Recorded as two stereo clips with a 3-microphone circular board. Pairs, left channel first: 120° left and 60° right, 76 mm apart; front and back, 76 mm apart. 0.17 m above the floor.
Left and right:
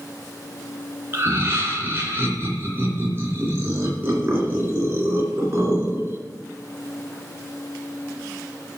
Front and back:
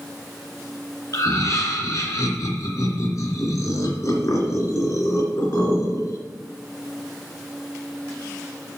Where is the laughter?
15° right, 2.5 m.